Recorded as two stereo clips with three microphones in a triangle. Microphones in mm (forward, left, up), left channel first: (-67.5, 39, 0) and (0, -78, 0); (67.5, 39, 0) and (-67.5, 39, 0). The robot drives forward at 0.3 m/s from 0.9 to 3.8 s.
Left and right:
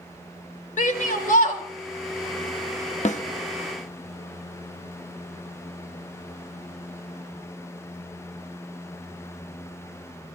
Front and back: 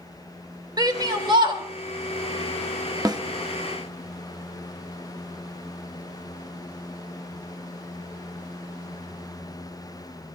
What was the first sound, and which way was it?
A shout, 120° left.